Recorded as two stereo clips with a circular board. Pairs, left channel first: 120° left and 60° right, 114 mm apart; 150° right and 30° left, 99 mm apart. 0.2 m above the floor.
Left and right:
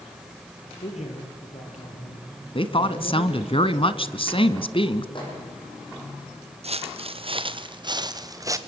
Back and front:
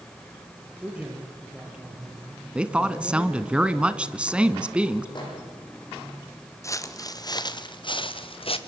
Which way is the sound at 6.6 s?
90° right.